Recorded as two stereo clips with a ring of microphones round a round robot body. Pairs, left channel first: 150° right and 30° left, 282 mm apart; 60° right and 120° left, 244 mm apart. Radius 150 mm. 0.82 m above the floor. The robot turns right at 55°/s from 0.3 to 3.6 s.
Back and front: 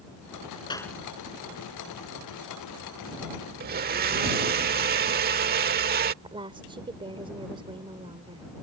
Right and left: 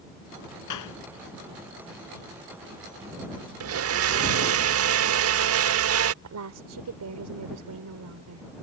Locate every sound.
0.7 s a clap: 75° right; by 1.0 s 60° right
3.6 s a blender: 90° left
6.2 s a woman speaking: 105° left